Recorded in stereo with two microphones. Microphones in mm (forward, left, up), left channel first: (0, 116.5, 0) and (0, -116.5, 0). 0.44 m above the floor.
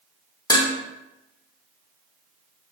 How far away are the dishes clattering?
About 0.6 m.